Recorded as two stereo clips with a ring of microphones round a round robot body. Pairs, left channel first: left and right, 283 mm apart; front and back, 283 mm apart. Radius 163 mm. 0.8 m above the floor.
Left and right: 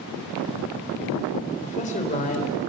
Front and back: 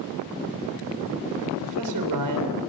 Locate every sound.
1.6 s a man speaking: 155° left, 3 m